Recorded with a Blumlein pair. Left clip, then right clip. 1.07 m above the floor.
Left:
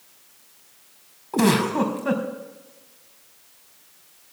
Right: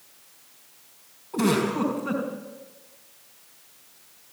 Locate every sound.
1.3 s a giggle: 25° left, 4.5 m